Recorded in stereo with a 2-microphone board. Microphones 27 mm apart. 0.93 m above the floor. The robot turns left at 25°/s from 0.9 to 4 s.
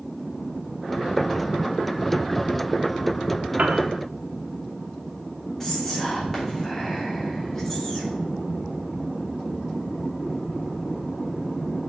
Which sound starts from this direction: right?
A piano, at 3.6 s.